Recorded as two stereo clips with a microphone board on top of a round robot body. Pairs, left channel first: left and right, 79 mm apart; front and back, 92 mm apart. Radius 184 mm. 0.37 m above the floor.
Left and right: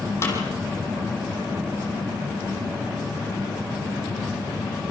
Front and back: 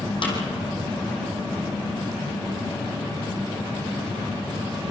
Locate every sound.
0.2 s a snare drum: 35° left, 5 m